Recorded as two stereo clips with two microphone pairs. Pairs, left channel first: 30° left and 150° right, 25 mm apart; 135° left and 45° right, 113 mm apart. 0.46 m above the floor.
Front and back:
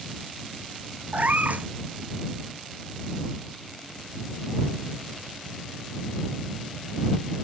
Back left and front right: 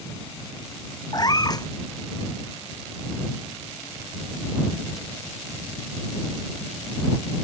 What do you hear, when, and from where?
1.1 s a cat meowing: 170° right